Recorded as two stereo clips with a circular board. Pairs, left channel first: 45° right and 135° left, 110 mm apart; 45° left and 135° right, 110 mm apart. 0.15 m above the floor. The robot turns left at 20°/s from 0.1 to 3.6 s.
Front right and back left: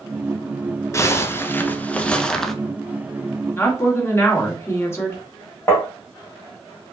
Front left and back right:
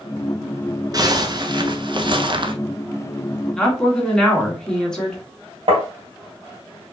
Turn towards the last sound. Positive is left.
turn(degrees=-110)